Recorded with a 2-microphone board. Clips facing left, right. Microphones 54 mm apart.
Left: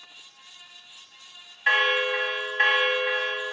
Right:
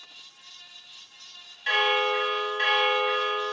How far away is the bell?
About 1.1 m.